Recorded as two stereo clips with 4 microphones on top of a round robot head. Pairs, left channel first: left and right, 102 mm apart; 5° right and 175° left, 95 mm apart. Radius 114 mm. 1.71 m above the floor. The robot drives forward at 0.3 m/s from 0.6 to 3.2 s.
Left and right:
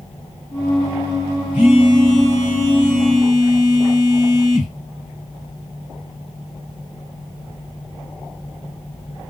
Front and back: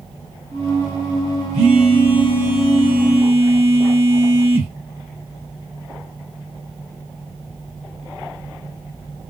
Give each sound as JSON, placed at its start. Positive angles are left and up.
{"t": 1.5, "sound": "a phone buzzing", "azimuth_deg": -160, "distance_m": 1.7}